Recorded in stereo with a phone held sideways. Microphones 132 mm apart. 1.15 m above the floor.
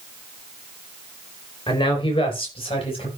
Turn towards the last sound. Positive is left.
turn(degrees=45)  # may be behind; listen again after turning